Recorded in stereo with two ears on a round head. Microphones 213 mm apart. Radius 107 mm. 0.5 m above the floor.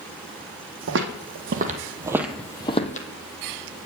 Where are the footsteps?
60° right (ahead or behind), 1.1 m; by 3.1 s 35° left (ahead or behind), 0.8 m.